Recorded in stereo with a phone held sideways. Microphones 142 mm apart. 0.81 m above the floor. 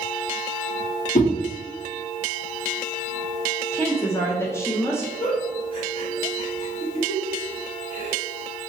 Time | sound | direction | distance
1.1 | a whoosh | 55° left (ahead or behind) | 0.9 m
3.7 | a woman speaking | 20° left (ahead or behind) | 0.7 m
5.2 | a giggle | 35° left (ahead or behind) | 1.4 m